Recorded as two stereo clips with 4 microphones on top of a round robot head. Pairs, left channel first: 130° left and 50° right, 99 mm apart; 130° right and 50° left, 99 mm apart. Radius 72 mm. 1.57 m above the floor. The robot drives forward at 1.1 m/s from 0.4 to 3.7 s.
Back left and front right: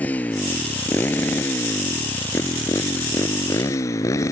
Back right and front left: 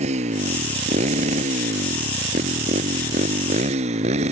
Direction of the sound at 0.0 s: 50° left.